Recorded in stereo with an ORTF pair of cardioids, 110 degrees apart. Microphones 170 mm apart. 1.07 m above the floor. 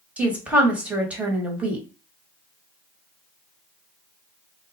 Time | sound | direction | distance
0.2 | a woman speaking | 10° right | 1.1 m